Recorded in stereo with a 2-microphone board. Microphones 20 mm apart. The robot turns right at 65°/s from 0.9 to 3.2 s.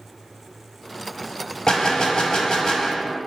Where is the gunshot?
65° left, 1.1 m; by 3.2 s 160° left, 1.1 m.